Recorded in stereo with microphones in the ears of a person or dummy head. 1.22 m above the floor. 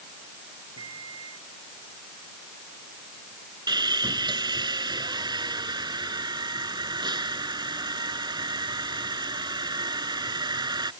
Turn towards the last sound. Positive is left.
turn(degrees=-15)  # may be behind; listen again after turning